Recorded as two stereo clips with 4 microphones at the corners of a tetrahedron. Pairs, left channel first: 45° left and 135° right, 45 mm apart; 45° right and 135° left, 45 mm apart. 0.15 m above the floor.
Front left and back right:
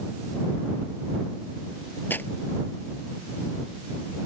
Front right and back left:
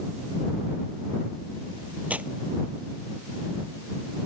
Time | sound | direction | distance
2.1 | tearing paper | 80° left | ?